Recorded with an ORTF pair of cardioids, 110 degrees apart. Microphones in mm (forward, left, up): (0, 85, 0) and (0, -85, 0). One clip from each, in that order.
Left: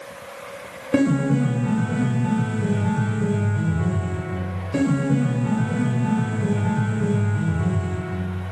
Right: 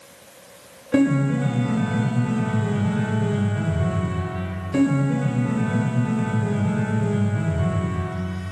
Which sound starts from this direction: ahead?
A piano, at 0.9 s.